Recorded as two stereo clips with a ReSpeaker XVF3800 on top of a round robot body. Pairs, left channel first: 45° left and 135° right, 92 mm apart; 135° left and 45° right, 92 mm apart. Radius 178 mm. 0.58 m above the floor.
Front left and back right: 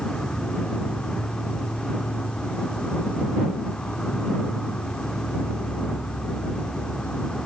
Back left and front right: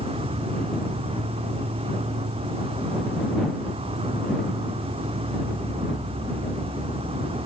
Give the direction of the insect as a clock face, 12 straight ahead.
1 o'clock.